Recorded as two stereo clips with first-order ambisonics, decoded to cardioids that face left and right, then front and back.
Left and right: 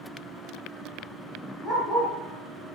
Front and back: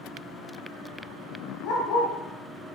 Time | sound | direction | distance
1.6 | a dog barking | 10° right | 6.5 m